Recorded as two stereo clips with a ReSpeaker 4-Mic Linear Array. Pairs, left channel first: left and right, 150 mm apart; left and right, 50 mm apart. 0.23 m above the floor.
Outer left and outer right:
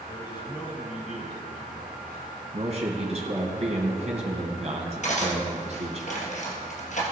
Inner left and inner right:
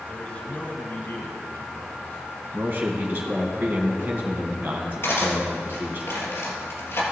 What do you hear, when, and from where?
0.1 s a man speaking: 25° left (ahead or behind), 1.7 m; by 2.4 s 60° left (ahead or behind), 2.5 m
2.5 s a man speaking: 45° right (ahead or behind), 2.5 m
5.0 s cutlery clinking: 55° left (ahead or behind), 3 m